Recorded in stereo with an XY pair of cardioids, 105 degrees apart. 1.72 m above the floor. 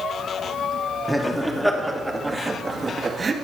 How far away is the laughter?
About 3.5 m.